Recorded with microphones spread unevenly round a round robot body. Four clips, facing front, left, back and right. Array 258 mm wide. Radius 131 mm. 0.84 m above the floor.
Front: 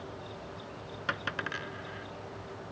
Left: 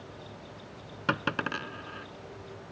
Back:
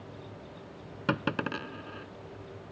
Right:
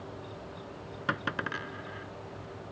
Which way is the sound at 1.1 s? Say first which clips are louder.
Left 3 dB, back 5 dB; 160° left.